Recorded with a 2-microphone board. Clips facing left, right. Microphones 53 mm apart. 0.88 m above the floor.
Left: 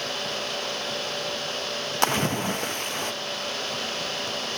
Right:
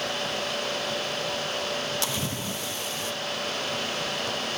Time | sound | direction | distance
2.0 | a splash | 50° left (ahead or behind) | 0.7 m